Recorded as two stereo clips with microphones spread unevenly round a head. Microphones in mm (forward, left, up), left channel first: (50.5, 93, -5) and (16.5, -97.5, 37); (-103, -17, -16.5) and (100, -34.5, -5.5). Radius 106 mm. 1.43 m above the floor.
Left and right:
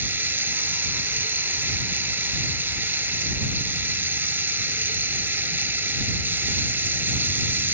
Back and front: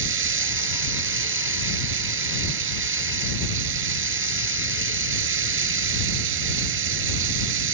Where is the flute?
I don't hear a flute.